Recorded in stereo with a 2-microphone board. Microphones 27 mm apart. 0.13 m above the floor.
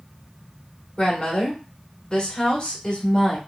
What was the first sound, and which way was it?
A woman speaking, 15° left (ahead or behind).